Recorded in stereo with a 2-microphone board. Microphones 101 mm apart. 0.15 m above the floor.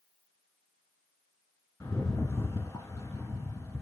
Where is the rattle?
25° left (ahead or behind), 1.2 m.